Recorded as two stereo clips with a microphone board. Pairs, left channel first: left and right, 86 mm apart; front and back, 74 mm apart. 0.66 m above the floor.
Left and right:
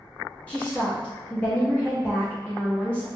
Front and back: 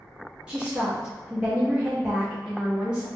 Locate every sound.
0.5 s a woman speaking: 130° left, 0.8 m